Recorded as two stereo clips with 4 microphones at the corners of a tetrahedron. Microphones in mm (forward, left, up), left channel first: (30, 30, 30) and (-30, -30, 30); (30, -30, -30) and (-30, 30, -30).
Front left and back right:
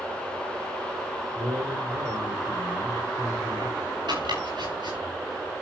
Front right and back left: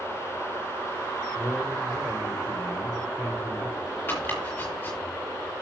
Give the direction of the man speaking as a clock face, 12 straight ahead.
4 o'clock.